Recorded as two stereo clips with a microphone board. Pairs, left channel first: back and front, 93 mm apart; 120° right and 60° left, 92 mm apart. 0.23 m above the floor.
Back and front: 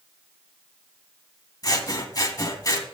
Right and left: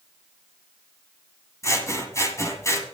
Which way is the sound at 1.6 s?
160° right.